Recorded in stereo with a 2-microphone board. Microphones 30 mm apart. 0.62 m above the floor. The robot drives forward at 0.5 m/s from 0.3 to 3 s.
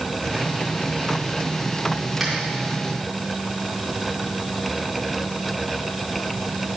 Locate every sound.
2.2 s a finger snap: 5° right (ahead or behind), 3.5 m